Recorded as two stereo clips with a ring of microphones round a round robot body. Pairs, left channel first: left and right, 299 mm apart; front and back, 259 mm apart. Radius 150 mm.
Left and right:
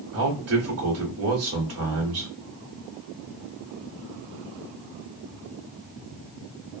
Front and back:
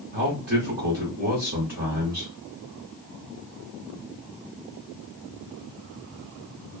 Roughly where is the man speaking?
Behind right.